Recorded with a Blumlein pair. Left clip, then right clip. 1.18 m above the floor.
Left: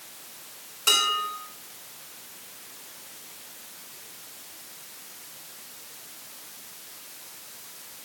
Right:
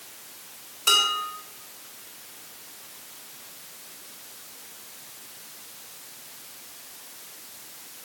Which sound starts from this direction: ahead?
Dishes clattering, at 0.9 s.